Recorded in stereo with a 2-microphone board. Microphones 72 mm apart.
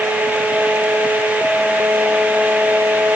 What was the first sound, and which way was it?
Only background noise.